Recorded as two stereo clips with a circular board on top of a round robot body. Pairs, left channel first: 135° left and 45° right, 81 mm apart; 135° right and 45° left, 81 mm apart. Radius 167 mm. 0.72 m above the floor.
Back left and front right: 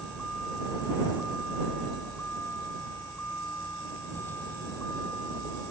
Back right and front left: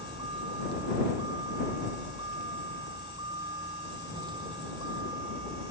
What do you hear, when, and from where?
0.0 s a vehicle: 55° left; by 5.7 s 75° left